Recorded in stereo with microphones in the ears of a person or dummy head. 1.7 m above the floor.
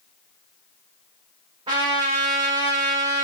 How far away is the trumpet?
About 3.5 m.